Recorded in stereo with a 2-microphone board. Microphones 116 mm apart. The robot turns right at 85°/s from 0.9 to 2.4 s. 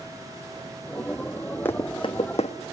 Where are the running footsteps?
15° left (ahead or behind), 1.1 m; by 2.5 s 65° left (ahead or behind), 1.1 m.